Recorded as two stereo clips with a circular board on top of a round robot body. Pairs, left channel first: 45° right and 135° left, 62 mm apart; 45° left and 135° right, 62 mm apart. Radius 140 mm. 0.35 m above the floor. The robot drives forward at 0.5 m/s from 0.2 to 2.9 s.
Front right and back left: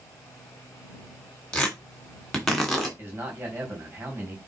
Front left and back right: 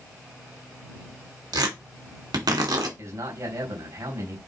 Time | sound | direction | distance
1.5 | tearing paper | 125° right | 2.5 m
3.0 | a man speaking | 165° right | 4 m